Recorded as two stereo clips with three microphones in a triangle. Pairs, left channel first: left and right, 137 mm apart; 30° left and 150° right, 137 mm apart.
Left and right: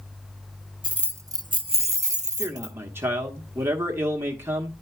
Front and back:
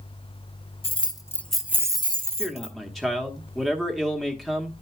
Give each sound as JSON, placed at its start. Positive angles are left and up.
{"t": 0.8, "sound": "keys jangling", "azimuth_deg": -10, "distance_m": 0.8}
{"t": 2.4, "sound": "a man speaking", "azimuth_deg": -55, "distance_m": 1.0}